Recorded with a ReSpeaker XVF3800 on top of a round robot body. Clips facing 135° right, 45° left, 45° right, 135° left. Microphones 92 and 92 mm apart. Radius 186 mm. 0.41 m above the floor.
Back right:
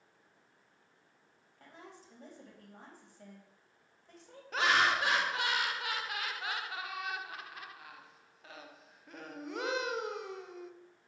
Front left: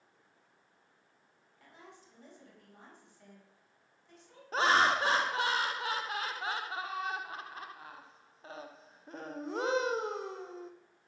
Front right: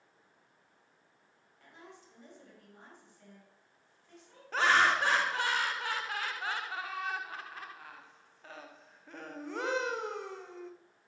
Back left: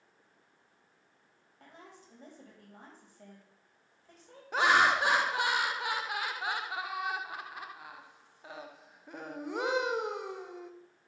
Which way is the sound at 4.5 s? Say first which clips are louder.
Front left 2 dB, back left 1 dB; 70° left.